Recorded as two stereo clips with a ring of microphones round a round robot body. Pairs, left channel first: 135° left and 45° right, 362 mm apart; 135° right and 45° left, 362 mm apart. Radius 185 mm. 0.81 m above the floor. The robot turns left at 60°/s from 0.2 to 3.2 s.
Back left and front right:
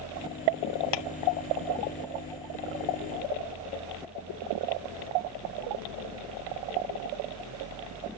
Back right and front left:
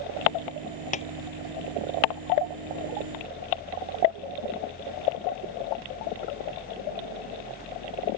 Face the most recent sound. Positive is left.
turn(degrees=20)